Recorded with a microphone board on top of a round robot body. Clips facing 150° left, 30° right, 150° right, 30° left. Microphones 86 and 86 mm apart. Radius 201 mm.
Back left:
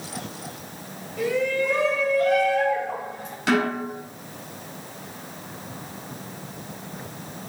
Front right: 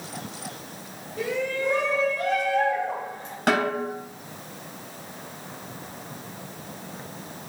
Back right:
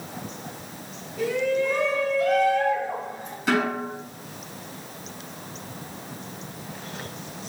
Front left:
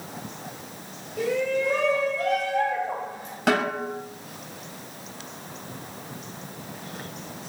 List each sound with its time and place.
1.2 s a shout: 30° left, 5 m
3.5 s a snare drum: 10° left, 3 m